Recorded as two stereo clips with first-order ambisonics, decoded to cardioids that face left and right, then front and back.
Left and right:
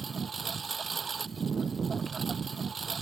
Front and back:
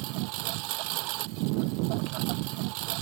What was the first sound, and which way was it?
A lawn mower, 165° right.